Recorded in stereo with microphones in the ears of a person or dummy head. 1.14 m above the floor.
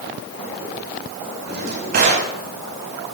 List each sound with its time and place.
1.5 s a drawer: 50° right (ahead or behind), 4 m